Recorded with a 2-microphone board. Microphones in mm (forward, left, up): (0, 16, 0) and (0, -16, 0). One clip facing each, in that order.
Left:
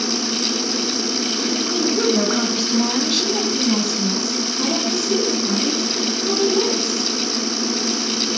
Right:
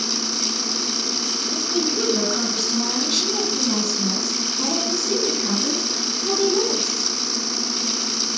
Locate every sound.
1.5 s a woman speaking: 20° left (ahead or behind), 3 m; by 7.1 s 10° right (ahead or behind), 6 m